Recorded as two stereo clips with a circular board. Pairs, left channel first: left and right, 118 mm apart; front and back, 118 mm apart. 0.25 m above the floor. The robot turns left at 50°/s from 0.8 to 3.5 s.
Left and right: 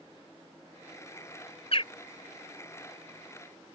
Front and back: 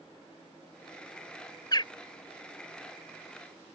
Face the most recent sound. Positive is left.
turn(degrees=-35)